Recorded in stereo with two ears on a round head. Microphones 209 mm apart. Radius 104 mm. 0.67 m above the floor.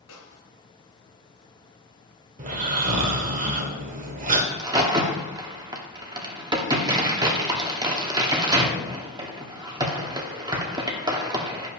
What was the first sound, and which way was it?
A snare drum, 70° left (ahead or behind).